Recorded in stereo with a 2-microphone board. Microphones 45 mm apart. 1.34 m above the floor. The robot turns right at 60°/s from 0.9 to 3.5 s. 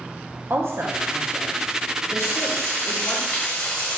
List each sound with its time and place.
0.5 s a woman speaking: 60° right (ahead or behind), 0.7 m; by 3.2 s 50° left (ahead or behind), 0.7 m
2.2 s frying: 70° left, 1.5 m; by 4.0 s 150° left, 1.5 m